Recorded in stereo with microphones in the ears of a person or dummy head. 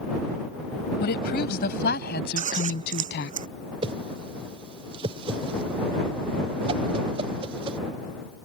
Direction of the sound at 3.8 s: 25° right (ahead or behind).